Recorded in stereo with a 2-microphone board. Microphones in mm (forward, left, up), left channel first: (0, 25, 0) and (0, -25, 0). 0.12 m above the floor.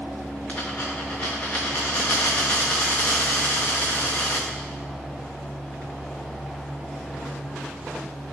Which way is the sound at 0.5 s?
25° left (ahead or behind).